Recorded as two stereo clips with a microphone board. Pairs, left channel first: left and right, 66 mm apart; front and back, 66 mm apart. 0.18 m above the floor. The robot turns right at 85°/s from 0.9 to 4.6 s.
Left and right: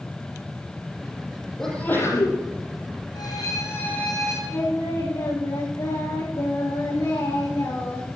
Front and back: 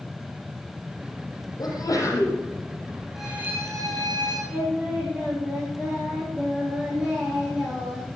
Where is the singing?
100° left, 8 m; by 8.2 s 105° left, 8 m.